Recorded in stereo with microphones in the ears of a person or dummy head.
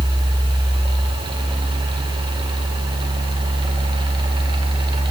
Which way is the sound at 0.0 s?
25° right (ahead or behind).